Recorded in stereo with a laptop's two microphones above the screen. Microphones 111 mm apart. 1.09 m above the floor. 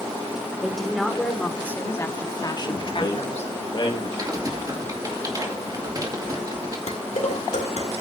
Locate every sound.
0.6 s a woman speaking: centre (ahead or behind), 3 m; by 3.5 s 70° left (ahead or behind), 1.7 m
2.7 s a man speaking: 40° left (ahead or behind), 1.6 m
4.2 s typing on a keyboard: 35° right (ahead or behind), 2.5 m
6.9 s dishes clattering: 80° left, 1.9 m